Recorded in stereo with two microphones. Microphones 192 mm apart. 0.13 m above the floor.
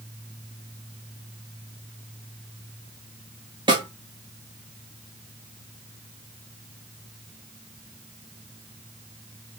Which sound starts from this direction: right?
A snare drum, at 3.7 s.